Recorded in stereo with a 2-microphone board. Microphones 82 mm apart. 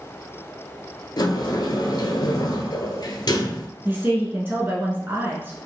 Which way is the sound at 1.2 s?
60° left (ahead or behind).